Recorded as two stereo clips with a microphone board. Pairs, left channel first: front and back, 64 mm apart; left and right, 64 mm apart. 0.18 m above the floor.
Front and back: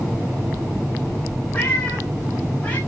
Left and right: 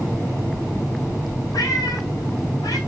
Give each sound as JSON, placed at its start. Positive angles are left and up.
{"t": 1.5, "sound": "a cat meowing", "azimuth_deg": 70, "distance_m": 3.0}